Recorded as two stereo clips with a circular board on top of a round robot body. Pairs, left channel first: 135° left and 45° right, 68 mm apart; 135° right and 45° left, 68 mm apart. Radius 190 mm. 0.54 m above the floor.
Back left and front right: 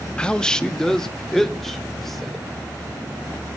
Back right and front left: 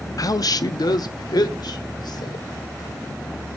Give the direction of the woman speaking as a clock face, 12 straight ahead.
5 o'clock.